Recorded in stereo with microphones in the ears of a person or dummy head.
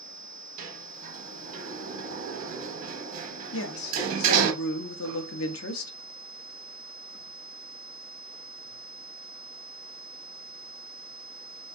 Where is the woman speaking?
70° left (ahead or behind), 0.5 m.